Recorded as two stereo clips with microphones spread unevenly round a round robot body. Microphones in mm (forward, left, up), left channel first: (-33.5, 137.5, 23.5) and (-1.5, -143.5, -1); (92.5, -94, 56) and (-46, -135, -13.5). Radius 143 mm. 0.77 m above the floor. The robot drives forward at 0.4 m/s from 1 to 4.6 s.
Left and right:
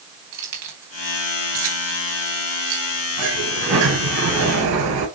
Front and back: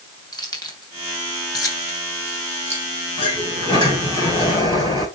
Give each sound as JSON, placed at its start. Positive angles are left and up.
{"t": 0.3, "sound": "keys jangling", "azimuth_deg": -45, "distance_m": 3.0}
{"t": 3.2, "sound": "a sliding door", "azimuth_deg": -45, "distance_m": 5.5}